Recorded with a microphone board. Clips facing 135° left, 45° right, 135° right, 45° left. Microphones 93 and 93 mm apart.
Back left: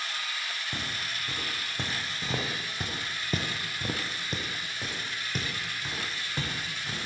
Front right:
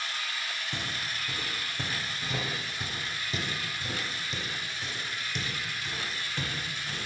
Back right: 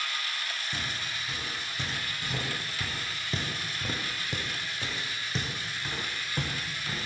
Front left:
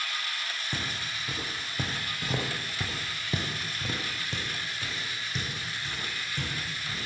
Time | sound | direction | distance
0.7 | footsteps | 60° left | 2 m